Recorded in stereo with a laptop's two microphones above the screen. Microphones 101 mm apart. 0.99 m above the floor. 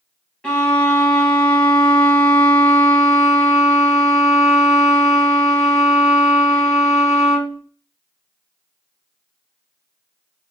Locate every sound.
0.4 s a violin: 10° left (ahead or behind), 0.8 m